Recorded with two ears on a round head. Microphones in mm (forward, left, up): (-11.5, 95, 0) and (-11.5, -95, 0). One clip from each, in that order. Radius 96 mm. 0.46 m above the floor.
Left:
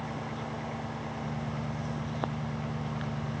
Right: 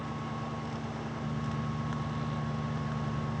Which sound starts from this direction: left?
An engine running, at 0.0 s.